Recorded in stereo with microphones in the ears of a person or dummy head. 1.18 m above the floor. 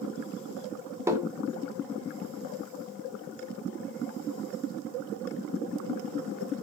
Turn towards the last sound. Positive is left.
turn(degrees=-15)  # may be behind; listen again after turning